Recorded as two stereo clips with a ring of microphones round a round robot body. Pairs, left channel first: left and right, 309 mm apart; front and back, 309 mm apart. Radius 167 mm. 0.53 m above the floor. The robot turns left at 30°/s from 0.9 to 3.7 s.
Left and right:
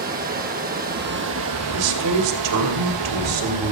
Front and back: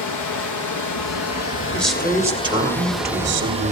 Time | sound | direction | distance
0.0 | running water | 30° right | 2.5 m
1.7 | a man speaking | 85° right | 2.5 m